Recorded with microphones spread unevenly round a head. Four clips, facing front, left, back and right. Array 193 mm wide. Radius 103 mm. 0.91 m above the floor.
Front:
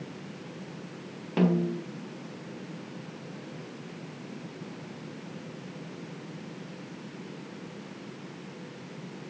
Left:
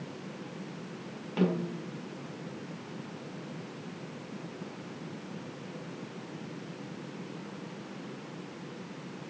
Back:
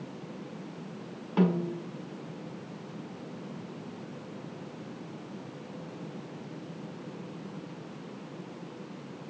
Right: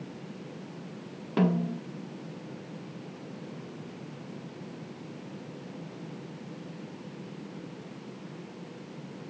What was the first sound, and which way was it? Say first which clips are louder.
A snare drum: right 3 dB, front 2 dB; 55° right.